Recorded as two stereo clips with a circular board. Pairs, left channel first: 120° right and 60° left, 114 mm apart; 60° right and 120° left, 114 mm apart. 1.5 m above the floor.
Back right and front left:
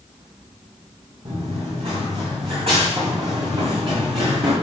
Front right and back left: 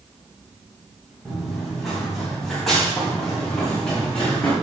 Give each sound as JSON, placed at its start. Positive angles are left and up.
{"t": 1.2, "sound": "running footsteps", "azimuth_deg": 35, "distance_m": 6.0}